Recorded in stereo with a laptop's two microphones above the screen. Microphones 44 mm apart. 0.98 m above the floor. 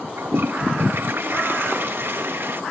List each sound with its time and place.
0.2 s a toilet flushing: 60° right (ahead or behind), 0.9 m